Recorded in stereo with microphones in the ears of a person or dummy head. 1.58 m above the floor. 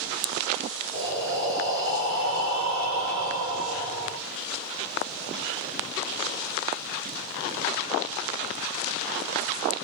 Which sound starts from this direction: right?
Breathing, at 0.9 s.